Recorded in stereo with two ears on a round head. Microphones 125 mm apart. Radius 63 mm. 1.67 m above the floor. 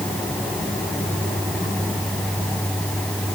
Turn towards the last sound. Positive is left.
No sound to turn to.